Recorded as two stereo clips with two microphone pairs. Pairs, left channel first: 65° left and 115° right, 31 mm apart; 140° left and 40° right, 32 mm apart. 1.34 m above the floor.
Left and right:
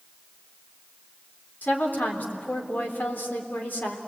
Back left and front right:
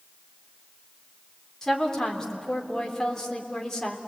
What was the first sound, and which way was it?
A woman speaking, 70° left.